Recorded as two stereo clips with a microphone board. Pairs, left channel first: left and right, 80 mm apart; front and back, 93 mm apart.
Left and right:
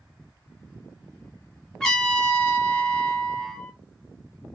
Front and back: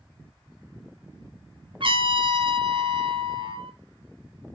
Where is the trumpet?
170° left, 1.0 m.